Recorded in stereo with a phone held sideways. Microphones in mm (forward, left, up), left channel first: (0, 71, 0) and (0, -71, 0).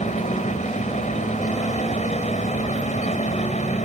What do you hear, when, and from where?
0.0 s a fan: 60° left (ahead or behind)